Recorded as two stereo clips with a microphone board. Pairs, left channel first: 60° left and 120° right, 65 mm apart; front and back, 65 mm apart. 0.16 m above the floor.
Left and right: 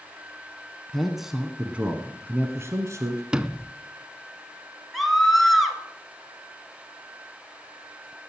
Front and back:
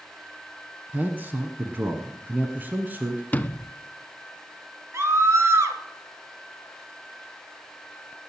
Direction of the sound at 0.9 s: 145° left.